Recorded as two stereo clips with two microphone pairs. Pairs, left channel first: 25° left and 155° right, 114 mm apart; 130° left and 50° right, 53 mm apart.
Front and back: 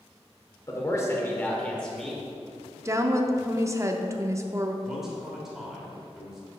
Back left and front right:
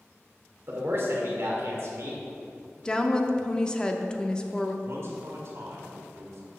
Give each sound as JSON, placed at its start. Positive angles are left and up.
{"t": 0.7, "sound": "a man speaking", "azimuth_deg": -25, "distance_m": 1.6}
{"t": 2.9, "sound": "a woman speaking", "azimuth_deg": 180, "distance_m": 0.6}
{"t": 4.8, "sound": "a man speaking", "azimuth_deg": -65, "distance_m": 1.7}